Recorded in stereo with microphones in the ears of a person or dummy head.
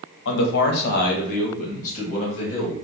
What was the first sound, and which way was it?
A man speaking, 70° left (ahead or behind).